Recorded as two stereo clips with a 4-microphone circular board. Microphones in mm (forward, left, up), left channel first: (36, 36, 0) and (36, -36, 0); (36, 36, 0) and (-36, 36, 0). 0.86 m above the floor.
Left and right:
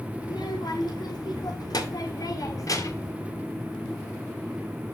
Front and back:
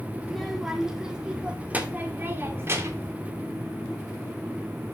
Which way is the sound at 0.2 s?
90° left.